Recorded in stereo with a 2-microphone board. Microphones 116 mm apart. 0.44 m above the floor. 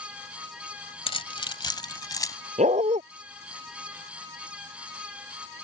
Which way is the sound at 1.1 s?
55° left (ahead or behind).